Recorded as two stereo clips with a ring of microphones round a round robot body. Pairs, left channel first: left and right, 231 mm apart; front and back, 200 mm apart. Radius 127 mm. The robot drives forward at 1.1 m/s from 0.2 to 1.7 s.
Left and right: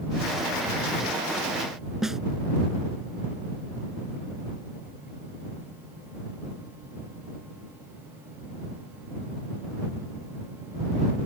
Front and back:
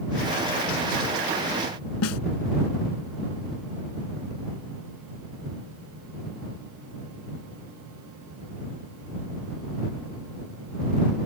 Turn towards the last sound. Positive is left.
turn(degrees=0)